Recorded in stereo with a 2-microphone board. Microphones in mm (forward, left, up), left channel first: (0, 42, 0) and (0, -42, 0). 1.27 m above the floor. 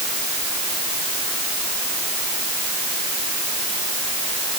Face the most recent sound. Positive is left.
No sound to turn to.